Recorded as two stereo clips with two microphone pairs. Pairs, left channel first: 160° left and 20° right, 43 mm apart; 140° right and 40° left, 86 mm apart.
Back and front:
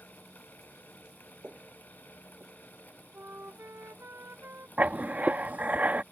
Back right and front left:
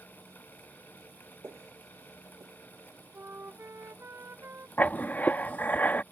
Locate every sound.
1.4 s footsteps: 10° left; by 2.6 s 10° right
3.1 s a flute: 20° right
4.8 s writing: 70° right